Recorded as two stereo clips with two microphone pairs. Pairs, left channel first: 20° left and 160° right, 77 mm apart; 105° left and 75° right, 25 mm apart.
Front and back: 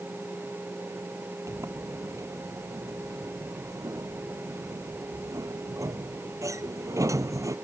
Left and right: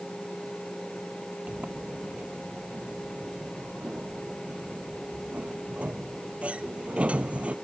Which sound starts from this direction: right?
A sliding door, at 1.5 s.